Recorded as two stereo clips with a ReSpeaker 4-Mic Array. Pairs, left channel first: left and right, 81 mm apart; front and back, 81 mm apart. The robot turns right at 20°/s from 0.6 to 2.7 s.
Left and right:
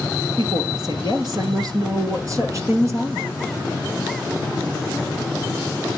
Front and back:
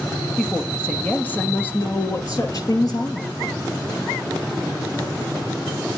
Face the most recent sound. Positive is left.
turn(degrees=-40)